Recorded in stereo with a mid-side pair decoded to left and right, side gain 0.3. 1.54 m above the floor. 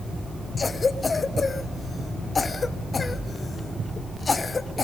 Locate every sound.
0.6 s a cough: 45° left, 1.4 m